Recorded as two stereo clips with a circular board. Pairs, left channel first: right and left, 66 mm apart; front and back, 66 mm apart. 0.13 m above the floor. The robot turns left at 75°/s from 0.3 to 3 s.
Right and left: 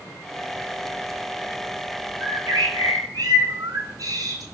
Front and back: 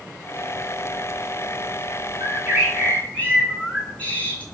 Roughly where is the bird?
Behind left.